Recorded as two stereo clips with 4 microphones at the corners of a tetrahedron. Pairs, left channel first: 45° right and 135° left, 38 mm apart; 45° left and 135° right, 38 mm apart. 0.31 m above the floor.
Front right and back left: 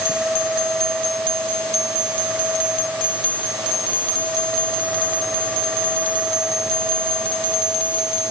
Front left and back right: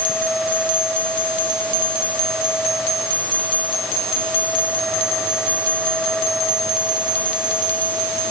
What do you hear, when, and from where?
Only background noise.